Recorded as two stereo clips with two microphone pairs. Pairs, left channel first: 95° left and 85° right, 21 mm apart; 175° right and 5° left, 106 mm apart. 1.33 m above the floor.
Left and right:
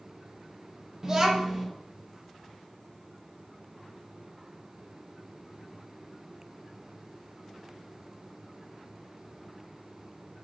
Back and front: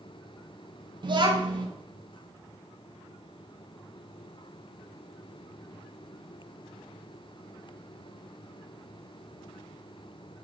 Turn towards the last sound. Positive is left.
turn(degrees=-25)